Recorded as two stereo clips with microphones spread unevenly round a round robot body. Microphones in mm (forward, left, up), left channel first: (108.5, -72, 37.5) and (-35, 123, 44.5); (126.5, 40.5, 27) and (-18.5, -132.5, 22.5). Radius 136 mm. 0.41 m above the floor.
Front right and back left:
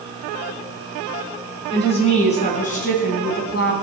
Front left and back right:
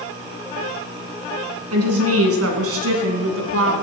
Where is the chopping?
I don't hear chopping.